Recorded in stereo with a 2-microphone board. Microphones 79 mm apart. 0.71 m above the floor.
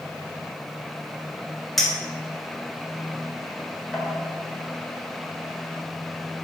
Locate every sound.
1.8 s a clink: 5° left (ahead or behind), 1.8 m